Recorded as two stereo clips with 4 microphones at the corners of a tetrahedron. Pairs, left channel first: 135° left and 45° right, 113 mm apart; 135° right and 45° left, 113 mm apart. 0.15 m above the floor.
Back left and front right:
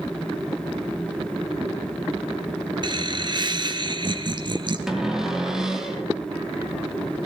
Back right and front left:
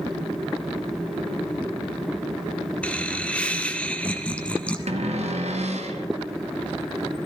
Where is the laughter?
60° right, 1.5 m.